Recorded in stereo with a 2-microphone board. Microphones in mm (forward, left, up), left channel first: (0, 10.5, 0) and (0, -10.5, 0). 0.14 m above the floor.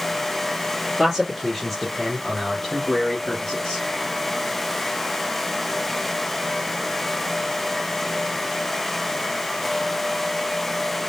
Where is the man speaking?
Centre (ahead or behind), 3 m; by 3.8 s 35° left (ahead or behind), 2.5 m.